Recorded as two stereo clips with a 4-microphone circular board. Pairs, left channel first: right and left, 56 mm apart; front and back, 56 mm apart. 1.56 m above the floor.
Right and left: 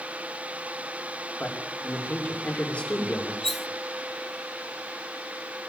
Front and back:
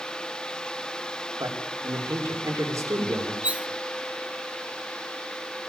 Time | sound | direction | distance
1.4 | a man speaking | 160° right | 6 m
3.4 | cutlery clinking | 170° right | 0.6 m